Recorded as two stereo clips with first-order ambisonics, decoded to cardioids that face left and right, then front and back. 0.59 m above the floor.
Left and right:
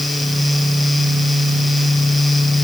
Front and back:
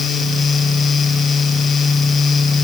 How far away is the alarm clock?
I don't hear an alarm clock.